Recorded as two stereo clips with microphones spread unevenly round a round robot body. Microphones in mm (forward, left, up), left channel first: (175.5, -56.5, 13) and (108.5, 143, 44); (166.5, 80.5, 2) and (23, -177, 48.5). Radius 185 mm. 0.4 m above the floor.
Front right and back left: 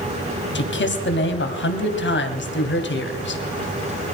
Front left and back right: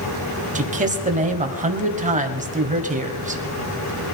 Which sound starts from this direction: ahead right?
A man speaking, at 0.6 s.